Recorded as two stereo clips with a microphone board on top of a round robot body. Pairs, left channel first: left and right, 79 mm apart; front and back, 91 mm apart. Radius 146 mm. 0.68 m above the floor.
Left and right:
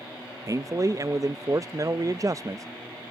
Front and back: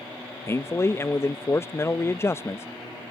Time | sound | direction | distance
0.5 | a man speaking | 55° right | ?